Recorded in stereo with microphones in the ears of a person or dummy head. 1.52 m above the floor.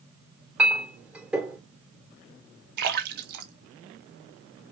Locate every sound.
0.6 s a clink: 5° right (ahead or behind), 3.5 m
2.8 s a splash: 60° right (ahead or behind), 1.3 m